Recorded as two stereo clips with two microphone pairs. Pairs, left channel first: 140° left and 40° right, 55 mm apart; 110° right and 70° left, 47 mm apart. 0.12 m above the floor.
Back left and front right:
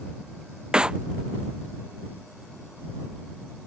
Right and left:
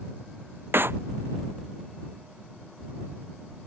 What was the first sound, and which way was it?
A clap, 35° left.